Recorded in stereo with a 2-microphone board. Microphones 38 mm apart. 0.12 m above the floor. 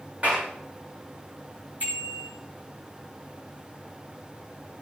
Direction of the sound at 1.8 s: 40° right (ahead or behind).